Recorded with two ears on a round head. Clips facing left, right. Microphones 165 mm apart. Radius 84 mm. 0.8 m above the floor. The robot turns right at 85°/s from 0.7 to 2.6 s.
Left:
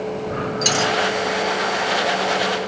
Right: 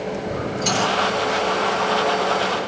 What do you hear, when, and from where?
0.6 s a dropped coin: 85° left, 4 m; by 0.9 s 70° left (ahead or behind), 4 m